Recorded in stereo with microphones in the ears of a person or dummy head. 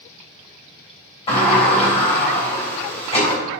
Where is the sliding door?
35° left (ahead or behind), 3.5 m.